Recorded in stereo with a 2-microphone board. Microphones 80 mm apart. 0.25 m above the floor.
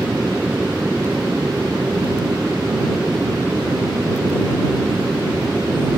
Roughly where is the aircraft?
Centre.